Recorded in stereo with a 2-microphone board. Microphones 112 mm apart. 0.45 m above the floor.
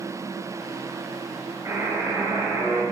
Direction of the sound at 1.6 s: 20° right (ahead or behind).